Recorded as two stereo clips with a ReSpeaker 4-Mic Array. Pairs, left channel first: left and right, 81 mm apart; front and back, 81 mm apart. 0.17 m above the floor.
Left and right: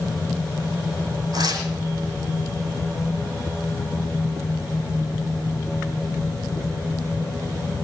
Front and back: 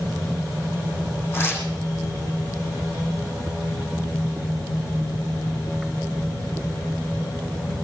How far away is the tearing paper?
About 6 m.